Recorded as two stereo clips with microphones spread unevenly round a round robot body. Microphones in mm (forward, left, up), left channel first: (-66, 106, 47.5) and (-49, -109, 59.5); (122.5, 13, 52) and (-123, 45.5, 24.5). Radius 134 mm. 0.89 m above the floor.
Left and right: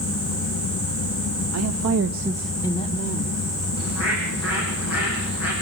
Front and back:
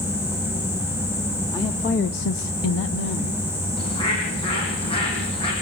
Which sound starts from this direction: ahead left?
A bird, at 3.8 s.